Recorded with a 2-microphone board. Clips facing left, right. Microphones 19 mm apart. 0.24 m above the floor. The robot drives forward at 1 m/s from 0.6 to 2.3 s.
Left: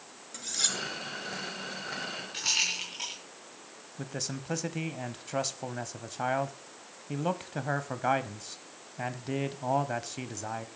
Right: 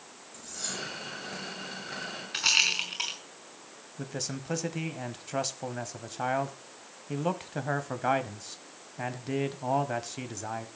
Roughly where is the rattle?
Right.